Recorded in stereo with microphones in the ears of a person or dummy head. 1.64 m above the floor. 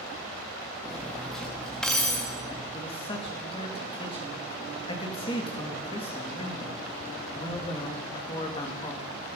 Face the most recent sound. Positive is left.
turn(degrees=25)  # may be behind; listen again after turning